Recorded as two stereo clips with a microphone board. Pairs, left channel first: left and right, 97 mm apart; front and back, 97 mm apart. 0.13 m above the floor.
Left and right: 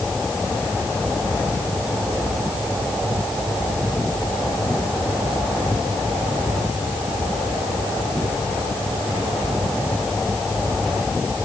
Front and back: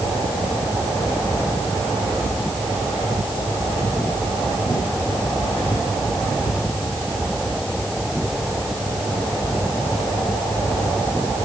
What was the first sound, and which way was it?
Only background noise.